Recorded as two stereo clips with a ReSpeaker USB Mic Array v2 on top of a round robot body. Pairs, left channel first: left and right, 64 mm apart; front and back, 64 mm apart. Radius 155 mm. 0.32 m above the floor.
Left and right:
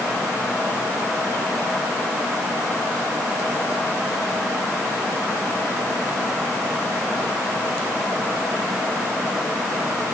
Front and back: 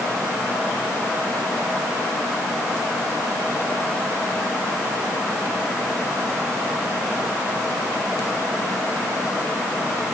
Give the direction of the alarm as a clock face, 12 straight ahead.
No alarm in this recording.